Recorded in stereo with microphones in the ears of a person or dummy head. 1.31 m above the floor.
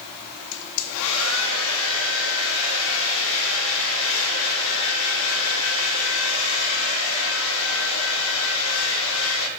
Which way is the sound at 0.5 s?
70° left (ahead or behind).